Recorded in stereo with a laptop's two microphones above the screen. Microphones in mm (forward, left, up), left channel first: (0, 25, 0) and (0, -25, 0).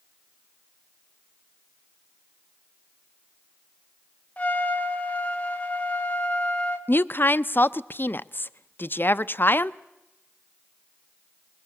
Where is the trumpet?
30° left (ahead or behind), 1.5 m.